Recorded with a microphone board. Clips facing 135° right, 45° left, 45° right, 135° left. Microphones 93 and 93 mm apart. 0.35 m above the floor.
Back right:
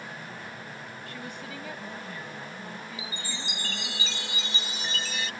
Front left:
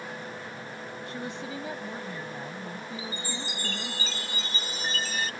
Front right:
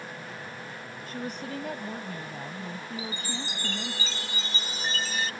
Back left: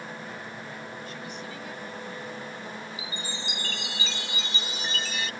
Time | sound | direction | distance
1.1 | a woman speaking | 15° right | ?
3.0 | a chime | straight ahead | ?